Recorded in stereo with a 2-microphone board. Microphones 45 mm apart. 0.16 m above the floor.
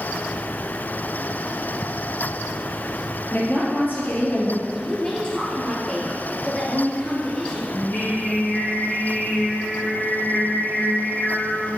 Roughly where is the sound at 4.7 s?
Left.